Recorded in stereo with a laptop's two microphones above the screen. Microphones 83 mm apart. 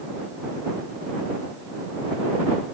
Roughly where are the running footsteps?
I don't hear running footsteps.